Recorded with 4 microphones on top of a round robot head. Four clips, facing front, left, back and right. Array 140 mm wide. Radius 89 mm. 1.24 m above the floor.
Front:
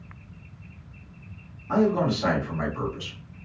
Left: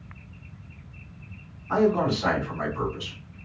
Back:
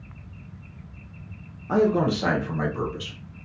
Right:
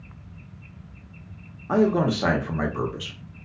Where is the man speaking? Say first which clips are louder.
Right 1 dB, back 1 dB; 120° right, 0.8 m.